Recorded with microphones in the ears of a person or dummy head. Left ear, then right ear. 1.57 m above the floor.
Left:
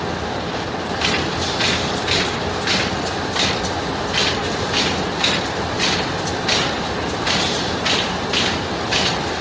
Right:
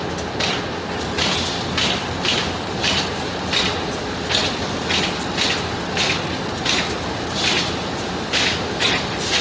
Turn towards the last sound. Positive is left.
No sound to turn to.